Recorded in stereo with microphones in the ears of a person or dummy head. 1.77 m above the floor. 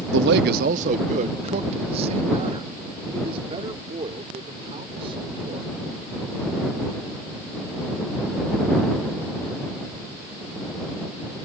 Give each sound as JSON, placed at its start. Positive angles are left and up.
{"t": 0.1, "sound": "a man speaking", "side_deg": -70}